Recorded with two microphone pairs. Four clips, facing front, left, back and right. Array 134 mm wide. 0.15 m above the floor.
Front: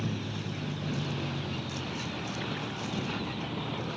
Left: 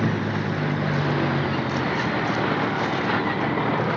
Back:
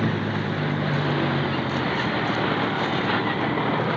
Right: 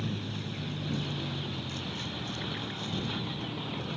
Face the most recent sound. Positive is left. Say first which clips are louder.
# left 13 dB, back 11 dB
turn(degrees=135)